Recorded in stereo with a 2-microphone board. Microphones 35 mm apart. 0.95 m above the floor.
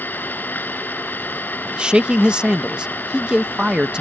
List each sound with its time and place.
0.0 s an engine running: 65° left (ahead or behind)
1.6 s a man speaking: 30° right (ahead or behind)